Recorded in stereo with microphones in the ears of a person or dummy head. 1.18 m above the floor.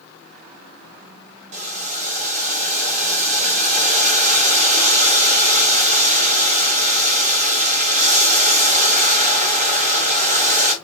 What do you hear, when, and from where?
1.5 s boiling: 30° right (ahead or behind), 0.8 m